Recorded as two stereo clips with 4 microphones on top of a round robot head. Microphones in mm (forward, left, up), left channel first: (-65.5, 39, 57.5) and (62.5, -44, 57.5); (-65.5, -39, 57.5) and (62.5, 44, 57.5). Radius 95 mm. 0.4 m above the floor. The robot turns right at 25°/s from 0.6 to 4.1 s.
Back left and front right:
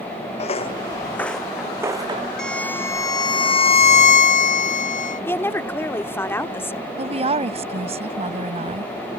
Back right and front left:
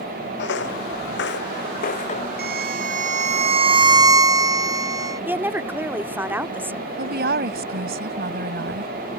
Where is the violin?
60° left; by 5.2 s 105° left.